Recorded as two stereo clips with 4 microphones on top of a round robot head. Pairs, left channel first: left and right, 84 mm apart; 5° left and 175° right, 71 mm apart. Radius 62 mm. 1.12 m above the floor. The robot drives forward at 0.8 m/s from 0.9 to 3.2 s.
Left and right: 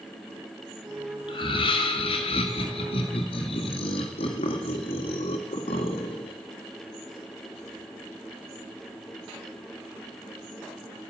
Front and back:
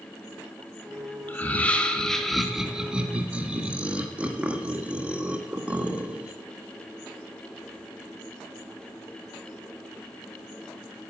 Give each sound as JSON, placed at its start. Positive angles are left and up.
{"t": 1.3, "sound": "laughter", "azimuth_deg": 70, "distance_m": 2.0}